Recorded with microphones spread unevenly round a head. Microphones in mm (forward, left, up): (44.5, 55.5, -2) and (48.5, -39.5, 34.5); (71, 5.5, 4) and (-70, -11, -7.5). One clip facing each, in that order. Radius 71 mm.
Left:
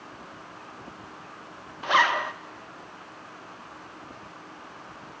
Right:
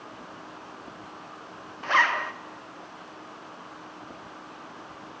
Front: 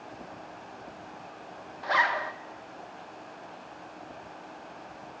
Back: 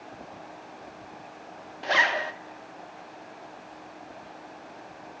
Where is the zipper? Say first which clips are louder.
Left 2 dB, back 1 dB; 140° left, 0.5 m.